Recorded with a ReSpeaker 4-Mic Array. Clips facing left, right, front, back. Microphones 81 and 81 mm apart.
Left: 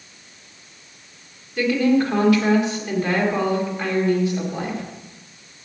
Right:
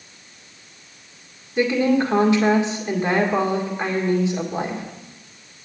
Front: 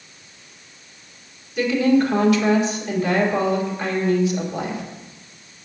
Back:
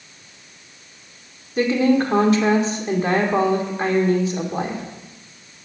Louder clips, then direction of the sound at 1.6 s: Even, even; 145° right.